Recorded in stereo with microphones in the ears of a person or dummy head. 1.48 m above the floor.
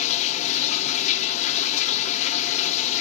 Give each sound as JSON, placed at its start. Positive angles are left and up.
{"t": 0.0, "sound": "running water", "side_deg": 40, "distance_m": 1.1}